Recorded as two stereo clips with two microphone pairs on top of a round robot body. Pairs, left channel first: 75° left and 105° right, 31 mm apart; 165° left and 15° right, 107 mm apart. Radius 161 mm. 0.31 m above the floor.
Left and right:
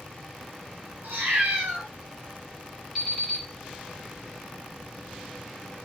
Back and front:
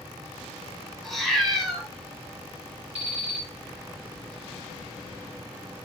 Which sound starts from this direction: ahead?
An alarm clock, at 3.0 s.